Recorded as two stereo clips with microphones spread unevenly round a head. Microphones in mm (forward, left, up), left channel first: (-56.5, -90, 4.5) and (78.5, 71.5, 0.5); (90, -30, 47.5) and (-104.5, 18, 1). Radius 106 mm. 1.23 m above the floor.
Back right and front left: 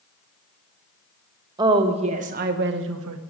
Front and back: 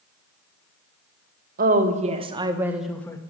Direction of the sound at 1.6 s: 120° left.